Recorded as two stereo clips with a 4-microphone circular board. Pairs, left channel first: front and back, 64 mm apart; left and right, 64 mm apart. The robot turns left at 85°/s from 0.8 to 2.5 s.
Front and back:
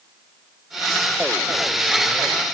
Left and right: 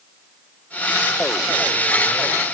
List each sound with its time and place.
Only background noise.